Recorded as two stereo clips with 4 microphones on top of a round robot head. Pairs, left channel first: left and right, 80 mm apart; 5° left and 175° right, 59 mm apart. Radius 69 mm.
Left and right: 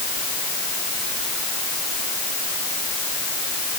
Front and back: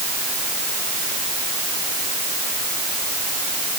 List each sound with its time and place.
Only background noise.